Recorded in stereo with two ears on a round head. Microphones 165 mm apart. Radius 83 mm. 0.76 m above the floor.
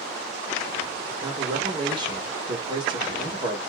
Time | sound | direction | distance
1.2 | a man speaking | 25° right (ahead or behind) | 1.1 m